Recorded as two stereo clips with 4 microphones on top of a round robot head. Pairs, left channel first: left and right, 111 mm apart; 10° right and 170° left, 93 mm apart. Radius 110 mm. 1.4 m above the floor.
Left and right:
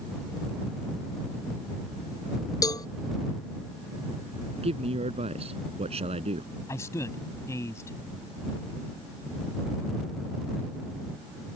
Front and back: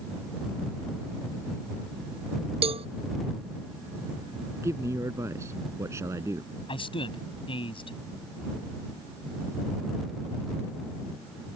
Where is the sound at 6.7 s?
20° left.